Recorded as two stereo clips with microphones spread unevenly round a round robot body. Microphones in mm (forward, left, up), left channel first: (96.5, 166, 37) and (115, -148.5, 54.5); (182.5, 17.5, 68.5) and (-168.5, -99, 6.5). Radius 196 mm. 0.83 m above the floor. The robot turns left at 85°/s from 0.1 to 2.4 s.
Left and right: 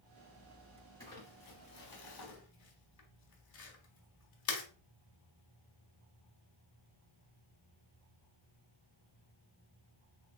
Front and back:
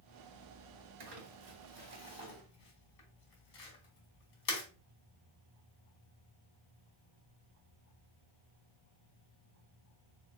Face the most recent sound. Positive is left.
turn(degrees=55)